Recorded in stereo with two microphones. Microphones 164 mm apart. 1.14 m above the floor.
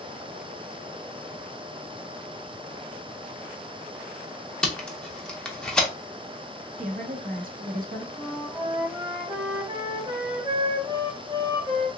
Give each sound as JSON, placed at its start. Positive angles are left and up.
{"t": 4.6, "sound": "tape being pulled", "side_deg": 5, "distance_m": 0.7}
{"t": 6.8, "sound": "a woman speaking", "side_deg": -55, "distance_m": 0.9}
{"t": 8.2, "sound": "a flute", "side_deg": -30, "distance_m": 1.4}